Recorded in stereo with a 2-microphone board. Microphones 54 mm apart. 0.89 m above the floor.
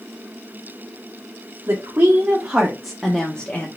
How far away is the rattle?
No rattle in this recording.